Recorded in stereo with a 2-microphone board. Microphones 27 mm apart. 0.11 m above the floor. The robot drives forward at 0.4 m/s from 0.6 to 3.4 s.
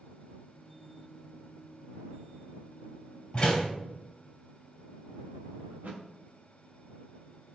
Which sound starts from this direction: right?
A thud, at 5.7 s.